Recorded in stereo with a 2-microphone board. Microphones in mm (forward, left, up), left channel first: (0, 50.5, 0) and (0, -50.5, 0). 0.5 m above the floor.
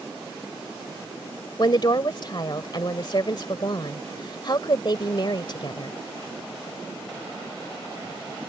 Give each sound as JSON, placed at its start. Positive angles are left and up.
{"t": 1.6, "sound": "a woman speaking", "side_deg": 50}